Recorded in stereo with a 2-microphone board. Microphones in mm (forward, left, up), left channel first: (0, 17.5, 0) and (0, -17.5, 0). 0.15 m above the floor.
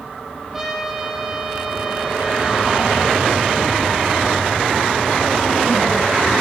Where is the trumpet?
10° right (ahead or behind), 5.5 m.